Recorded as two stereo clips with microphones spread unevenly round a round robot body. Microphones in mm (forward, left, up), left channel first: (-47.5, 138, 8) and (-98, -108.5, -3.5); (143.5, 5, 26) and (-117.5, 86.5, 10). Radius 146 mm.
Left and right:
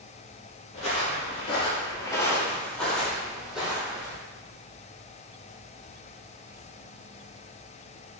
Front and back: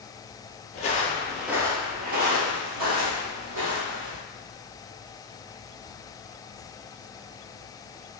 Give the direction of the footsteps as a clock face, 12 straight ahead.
11 o'clock.